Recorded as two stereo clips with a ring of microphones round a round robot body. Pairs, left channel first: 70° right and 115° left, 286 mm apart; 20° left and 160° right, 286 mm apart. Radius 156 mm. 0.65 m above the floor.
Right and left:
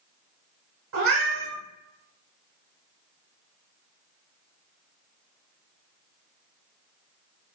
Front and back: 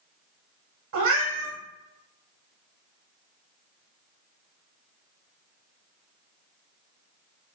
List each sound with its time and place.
0.9 s a cat meowing: 155° left, 0.8 m